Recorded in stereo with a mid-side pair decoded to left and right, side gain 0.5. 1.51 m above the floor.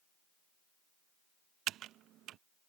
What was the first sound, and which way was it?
Typing on a keyboard, 70° right.